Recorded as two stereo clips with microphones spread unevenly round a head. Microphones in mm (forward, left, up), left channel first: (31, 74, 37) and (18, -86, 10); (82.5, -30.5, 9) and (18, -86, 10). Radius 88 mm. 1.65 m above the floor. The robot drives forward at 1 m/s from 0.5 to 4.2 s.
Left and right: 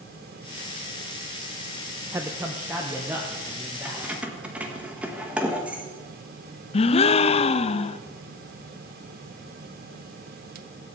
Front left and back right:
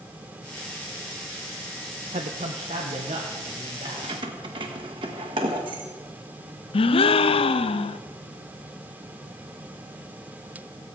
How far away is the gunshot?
I don't hear a gunshot.